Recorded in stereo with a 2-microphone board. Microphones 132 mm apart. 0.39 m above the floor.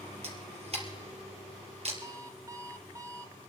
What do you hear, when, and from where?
0.2 s a camera shutter: 50° right (ahead or behind), 2.5 m
2.0 s an alarm clock: 25° right (ahead or behind), 1.0 m